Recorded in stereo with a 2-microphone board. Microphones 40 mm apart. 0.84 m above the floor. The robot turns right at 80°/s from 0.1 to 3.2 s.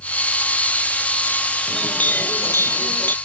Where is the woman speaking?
No woman speaking in this recording.